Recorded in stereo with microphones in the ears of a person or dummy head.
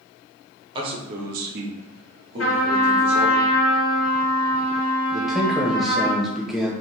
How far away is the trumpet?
About 1.2 m.